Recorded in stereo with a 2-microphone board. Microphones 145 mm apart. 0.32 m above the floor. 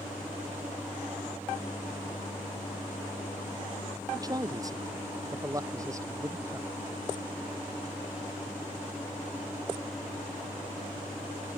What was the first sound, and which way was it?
A man speaking, 25° right (ahead or behind).